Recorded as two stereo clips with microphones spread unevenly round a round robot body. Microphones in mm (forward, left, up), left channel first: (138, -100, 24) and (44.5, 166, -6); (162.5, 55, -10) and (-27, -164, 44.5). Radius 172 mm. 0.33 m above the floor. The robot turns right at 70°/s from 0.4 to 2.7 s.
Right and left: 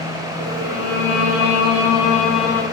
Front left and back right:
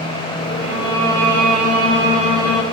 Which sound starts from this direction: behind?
A violin, at 0.6 s.